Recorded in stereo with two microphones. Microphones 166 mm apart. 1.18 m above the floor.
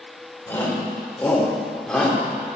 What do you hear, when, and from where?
0.5 s a shout: 15° left (ahead or behind), 4 m; by 2.2 s 5° left (ahead or behind), 3 m